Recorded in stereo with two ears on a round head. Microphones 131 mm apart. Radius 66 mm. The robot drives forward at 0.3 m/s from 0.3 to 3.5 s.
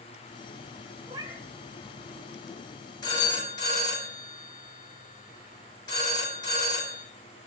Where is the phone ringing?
30° left (ahead or behind), 3.5 m.